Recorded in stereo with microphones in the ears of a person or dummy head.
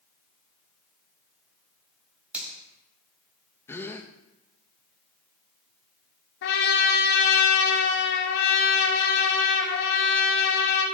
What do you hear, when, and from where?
2.3 s a finger snap: 10° right (ahead or behind), 5.5 m
3.7 s a gasp: 15° left (ahead or behind), 0.9 m
6.4 s a trumpet: 70° left (ahead or behind), 3.5 m